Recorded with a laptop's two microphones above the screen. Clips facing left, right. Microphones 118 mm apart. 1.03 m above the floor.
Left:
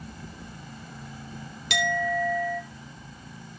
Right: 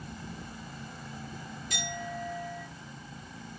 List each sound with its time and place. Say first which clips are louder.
1.7 s a clink: left 12 dB; 85° left, 1.0 m